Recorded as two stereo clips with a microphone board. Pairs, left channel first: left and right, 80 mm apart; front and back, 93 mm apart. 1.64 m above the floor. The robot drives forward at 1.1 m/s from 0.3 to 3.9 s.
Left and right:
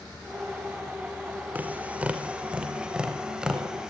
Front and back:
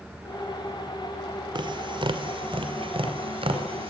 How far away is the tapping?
About 2 m.